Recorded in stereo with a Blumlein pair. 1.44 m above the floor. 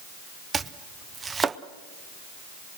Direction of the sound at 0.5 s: 15° right.